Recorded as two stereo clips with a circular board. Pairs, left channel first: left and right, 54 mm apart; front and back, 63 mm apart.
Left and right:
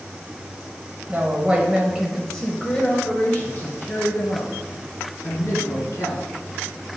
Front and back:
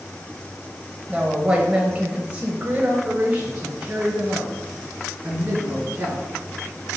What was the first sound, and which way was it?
A woman speaking, 115° right.